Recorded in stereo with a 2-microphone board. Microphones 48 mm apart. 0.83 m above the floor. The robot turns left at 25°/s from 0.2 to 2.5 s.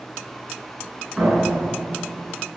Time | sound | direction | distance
1.2 | a door slam | 15° right | 8.5 m